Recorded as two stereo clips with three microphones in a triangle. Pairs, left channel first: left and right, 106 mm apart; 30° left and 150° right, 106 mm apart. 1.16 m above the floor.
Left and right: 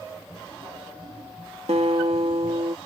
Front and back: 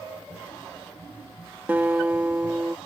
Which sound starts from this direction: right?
A guitar, at 1.7 s.